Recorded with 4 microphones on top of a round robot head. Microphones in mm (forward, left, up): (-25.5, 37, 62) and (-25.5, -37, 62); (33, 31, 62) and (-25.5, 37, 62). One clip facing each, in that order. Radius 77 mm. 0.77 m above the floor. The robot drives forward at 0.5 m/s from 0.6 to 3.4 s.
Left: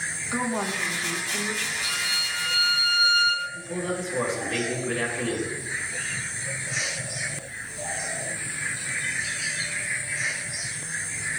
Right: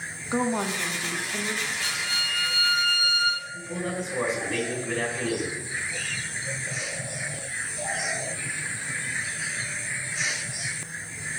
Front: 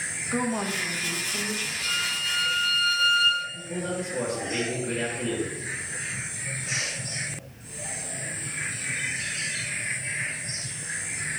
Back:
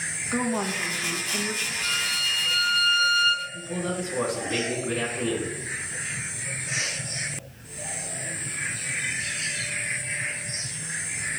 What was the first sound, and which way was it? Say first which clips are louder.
A woman speaking: right 2 dB, back 1 dB; 110° right.